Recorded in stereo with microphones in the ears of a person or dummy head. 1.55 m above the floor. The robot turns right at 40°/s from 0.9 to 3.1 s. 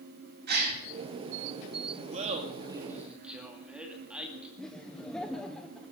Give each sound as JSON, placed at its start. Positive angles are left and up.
{"t": 0.5, "sound": "a gasp", "side_deg": -55, "distance_m": 2.5}
{"t": 2.1, "sound": "laughter", "side_deg": -45, "distance_m": 2.5}
{"t": 4.6, "sound": "laughter", "side_deg": 5, "distance_m": 1.0}